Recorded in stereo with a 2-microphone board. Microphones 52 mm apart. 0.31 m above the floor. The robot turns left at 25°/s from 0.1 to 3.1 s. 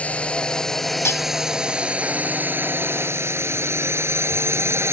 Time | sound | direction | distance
0.0 | a drone | 25° left (ahead or behind) | ?
1.1 | cutlery clinking | 55° left (ahead or behind) | ?